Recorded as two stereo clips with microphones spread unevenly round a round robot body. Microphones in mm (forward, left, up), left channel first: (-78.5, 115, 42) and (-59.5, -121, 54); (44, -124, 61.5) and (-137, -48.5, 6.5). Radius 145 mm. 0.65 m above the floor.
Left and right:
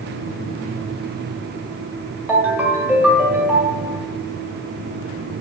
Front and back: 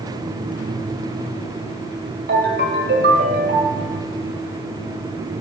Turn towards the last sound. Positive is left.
turn(degrees=-170)